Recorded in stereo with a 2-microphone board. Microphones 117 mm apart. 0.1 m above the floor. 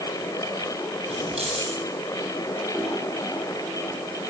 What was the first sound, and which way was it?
Keys jangling, 60° right (ahead or behind).